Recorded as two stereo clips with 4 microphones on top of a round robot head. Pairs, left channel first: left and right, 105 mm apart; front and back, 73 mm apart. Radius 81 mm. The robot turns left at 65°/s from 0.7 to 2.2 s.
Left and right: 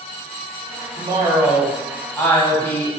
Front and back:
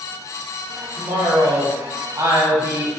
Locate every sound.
1.0 s a woman speaking: 120° right, 1.7 m; by 2.9 s 160° left, 1.7 m